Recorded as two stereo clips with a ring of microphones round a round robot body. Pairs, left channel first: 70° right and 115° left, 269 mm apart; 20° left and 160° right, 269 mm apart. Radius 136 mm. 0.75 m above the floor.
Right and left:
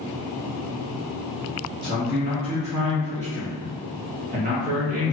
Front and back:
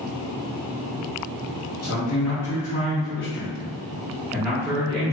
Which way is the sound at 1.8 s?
45° left.